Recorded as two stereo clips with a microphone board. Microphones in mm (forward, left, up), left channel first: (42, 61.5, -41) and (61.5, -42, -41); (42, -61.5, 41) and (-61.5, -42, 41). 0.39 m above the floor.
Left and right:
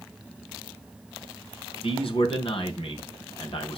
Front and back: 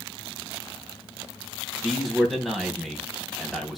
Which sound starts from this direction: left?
A man speaking, at 1.8 s.